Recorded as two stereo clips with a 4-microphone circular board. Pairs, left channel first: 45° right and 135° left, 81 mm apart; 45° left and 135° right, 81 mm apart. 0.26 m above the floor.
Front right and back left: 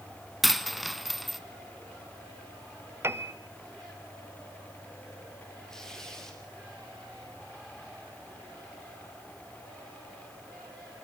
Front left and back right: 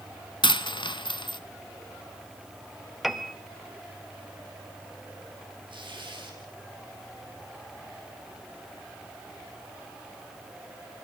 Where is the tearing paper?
130° right, 4.5 m.